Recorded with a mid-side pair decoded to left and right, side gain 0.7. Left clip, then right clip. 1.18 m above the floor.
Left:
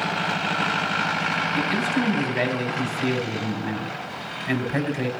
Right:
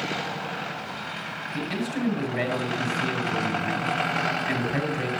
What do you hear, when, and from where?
1.5 s a man speaking: 20° left, 6 m